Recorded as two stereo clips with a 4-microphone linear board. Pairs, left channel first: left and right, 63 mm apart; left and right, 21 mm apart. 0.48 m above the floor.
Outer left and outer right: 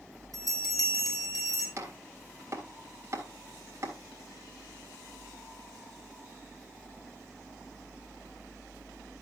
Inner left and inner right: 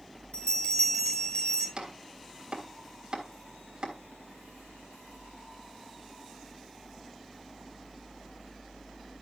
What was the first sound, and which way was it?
A bell, 75° left (ahead or behind).